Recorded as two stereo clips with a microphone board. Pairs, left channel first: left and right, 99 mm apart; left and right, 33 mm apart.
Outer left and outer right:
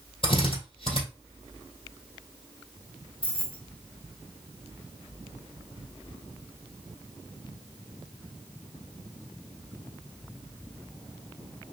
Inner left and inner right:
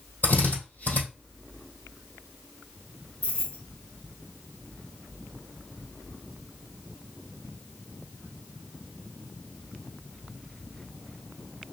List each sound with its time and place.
0.2 s a drill: 70° left (ahead or behind), 3 m
3.2 s keys jangling: 70° left (ahead or behind), 3 m